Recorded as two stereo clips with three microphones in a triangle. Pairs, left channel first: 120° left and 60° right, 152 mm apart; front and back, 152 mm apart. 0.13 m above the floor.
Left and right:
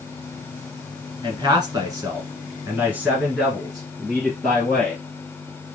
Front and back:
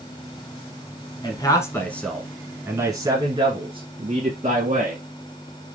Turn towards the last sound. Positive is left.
turn(degrees=-155)